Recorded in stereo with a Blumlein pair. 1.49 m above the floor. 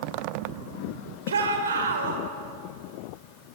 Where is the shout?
70° right, 5 m.